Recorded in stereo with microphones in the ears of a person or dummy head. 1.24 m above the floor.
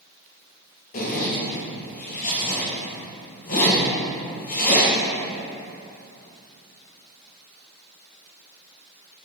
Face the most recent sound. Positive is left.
turn(degrees=50)  # may be behind; listen again after turning